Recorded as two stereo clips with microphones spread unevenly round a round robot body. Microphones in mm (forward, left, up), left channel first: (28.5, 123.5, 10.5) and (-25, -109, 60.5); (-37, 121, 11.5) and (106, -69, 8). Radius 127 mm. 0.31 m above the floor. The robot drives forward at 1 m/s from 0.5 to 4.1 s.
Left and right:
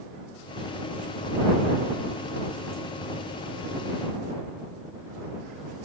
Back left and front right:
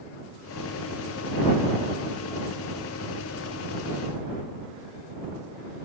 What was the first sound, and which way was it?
Only background noise.